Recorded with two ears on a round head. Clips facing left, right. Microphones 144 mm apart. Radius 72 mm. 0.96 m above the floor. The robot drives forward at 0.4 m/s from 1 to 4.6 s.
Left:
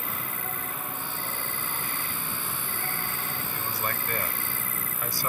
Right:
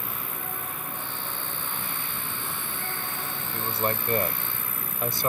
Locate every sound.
0.0 s an insect: 15° right (ahead or behind)
3.5 s a man speaking: 25° right (ahead or behind); by 5.3 s 20° right (ahead or behind)